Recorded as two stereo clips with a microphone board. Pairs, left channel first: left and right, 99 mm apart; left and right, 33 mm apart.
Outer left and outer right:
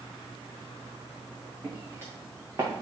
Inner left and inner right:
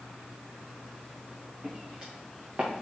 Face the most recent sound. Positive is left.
turn(degrees=-30)  # may be behind; listen again after turning